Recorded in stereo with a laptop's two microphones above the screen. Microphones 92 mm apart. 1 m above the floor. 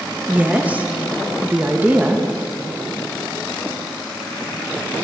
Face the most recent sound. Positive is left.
turn(degrees=-15)  # may be behind; listen again after turning